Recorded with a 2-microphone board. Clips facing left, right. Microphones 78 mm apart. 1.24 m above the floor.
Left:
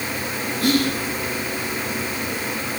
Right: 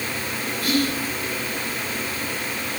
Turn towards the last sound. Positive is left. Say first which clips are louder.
# left 3 dB
turn(degrees=75)  # may be behind; listen again after turning